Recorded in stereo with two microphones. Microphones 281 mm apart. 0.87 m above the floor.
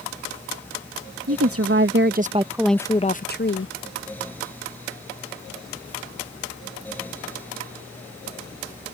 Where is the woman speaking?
60° right (ahead or behind); by 3.7 s 45° left (ahead or behind).